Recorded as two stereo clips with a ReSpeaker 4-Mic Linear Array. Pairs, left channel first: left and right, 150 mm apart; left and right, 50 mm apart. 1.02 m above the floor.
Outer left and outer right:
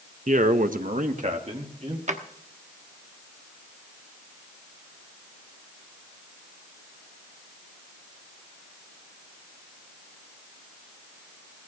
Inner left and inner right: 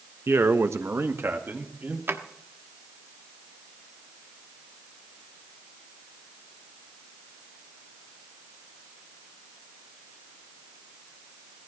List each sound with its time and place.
0.3 s a man speaking: 50° right (ahead or behind), 1.1 m; by 2.0 s 45° right (ahead or behind), 3 m
2.1 s a drawer: 50° right (ahead or behind), 1.2 m